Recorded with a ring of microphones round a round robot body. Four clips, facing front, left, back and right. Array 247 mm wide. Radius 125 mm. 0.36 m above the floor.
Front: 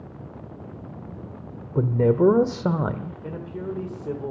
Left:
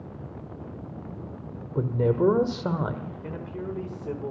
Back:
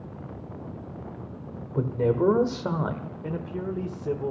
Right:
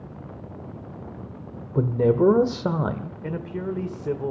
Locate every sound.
1.8 s a man speaking: 35° right, 1.1 m
3.2 s a man speaking: 100° right, 1.6 m